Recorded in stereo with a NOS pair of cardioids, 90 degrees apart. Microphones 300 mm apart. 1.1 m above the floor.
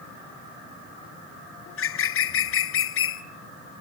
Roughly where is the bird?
Ahead left.